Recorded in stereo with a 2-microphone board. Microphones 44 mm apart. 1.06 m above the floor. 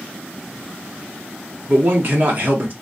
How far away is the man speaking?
About 1.0 m.